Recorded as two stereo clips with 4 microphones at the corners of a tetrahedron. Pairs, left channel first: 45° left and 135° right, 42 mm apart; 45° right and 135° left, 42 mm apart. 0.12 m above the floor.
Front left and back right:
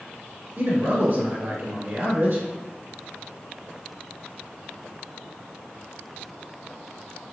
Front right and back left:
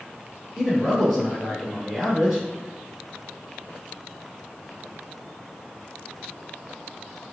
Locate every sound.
0.6 s a man speaking: 130° right, 1.9 m